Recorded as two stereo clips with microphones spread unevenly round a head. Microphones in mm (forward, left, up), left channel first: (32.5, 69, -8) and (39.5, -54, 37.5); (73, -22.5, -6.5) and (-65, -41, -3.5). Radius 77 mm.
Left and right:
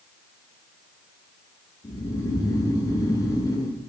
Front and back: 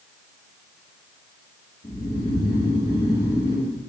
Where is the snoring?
65° left, 1.2 m.